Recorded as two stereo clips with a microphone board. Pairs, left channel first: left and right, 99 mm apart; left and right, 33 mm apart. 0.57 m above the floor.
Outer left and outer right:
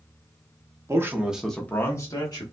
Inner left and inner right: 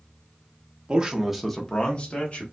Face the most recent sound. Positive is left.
turn(degrees=50)  # may be behind; listen again after turning